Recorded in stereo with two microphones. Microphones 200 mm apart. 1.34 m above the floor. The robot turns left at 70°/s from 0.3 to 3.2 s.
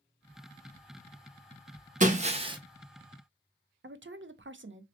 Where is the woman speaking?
70° right (ahead or behind), 0.6 m.